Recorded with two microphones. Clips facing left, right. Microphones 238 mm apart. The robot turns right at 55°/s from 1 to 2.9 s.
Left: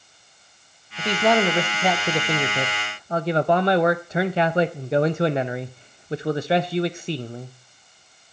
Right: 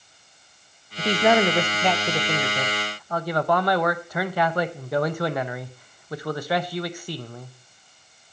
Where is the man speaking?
15° right (ahead or behind), 0.5 m; by 7.5 s 25° left (ahead or behind), 0.5 m.